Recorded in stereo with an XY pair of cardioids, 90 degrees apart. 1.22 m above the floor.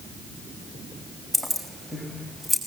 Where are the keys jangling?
5° right, 5 m.